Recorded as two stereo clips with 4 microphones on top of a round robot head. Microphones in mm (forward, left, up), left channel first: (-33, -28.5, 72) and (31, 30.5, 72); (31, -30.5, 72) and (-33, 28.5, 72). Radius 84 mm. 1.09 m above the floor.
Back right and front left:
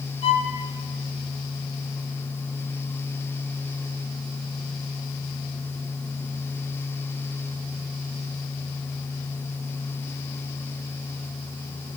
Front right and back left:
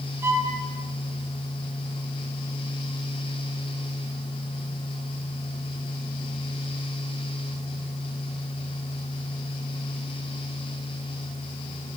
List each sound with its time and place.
0.2 s a violin: 155° right, 4.5 m